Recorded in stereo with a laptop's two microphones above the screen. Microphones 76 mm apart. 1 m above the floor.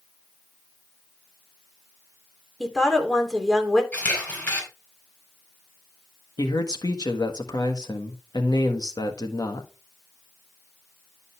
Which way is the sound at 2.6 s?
5° left (ahead or behind).